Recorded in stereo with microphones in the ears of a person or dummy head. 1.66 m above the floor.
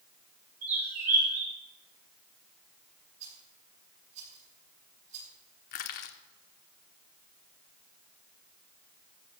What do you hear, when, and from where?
0.6 s a bird: 90° right, 6 m
3.2 s a rattle: 45° right (ahead or behind), 5 m
5.7 s crushing: 45° left (ahead or behind), 0.9 m